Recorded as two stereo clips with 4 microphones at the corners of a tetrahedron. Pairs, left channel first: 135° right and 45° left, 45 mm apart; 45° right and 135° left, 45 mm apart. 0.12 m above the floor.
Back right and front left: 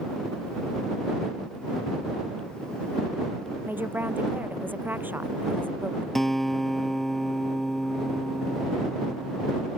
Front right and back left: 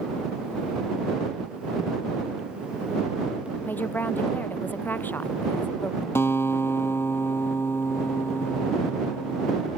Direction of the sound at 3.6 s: Straight ahead.